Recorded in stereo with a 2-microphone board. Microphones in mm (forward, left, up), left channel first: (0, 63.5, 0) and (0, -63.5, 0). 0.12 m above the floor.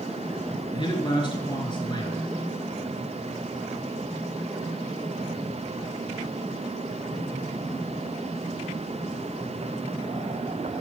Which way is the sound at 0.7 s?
40° left (ahead or behind).